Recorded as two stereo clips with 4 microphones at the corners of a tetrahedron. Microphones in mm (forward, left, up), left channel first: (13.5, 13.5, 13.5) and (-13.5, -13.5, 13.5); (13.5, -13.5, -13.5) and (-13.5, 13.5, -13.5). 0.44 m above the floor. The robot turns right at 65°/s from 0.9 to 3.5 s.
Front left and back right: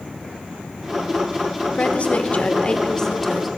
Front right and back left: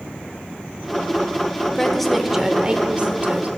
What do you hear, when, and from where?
1.8 s a woman speaking: 20° left, 0.9 m; by 3.5 s 135° left, 0.9 m